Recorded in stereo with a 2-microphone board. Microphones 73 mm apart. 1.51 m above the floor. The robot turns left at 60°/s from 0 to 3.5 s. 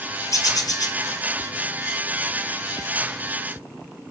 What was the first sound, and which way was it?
A bird, 120° left.